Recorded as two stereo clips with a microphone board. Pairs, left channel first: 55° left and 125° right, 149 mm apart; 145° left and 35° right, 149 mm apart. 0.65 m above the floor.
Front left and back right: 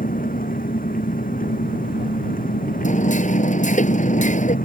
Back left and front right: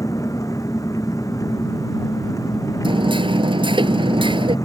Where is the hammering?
20° left.